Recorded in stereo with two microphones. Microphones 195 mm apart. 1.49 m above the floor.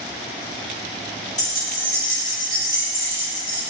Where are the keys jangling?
40° left (ahead or behind), 0.9 m; by 3.6 s 50° left (ahead or behind), 2.5 m.